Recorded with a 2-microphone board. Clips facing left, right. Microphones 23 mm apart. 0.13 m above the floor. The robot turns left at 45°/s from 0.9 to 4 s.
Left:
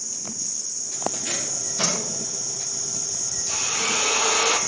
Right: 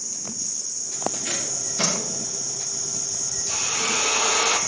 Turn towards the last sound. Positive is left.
turn(degrees=40)  # may be behind; listen again after turning